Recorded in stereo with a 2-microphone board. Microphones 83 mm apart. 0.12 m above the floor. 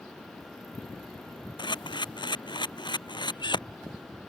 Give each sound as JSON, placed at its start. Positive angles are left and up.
{"t": 1.6, "sound": "a camera shutter", "side_deg": 65}